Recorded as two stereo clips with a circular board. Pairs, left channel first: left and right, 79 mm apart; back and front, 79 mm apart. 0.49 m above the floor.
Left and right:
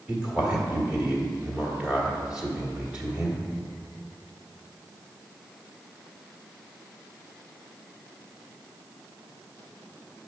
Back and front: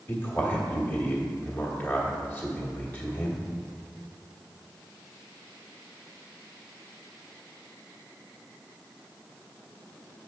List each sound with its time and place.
0.1 s a man speaking: 150° right, 1.4 m